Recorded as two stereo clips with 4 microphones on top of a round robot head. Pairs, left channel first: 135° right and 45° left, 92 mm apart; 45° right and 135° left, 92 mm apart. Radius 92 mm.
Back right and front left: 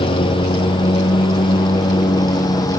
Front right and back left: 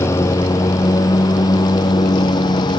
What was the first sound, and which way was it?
A lawn mower, 105° right.